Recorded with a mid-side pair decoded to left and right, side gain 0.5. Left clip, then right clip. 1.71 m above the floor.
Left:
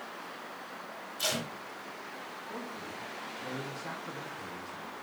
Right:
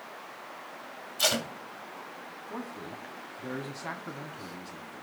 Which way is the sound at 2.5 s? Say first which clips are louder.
Right 3 dB; 45° right.